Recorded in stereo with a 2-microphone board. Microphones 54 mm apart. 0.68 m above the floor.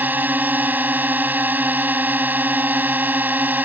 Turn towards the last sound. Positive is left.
turn(degrees=-35)  # may be behind; listen again after turning